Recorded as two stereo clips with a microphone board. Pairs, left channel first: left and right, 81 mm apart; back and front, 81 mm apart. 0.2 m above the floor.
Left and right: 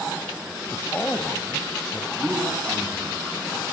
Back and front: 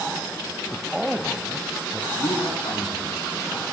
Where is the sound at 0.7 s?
80° left, 1.5 m.